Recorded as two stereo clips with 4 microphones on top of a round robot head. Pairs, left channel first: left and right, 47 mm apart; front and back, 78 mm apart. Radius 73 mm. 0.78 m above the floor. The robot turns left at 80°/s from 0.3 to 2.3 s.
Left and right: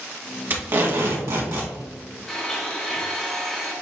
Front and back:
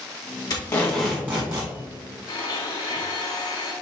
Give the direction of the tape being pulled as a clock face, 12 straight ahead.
2 o'clock.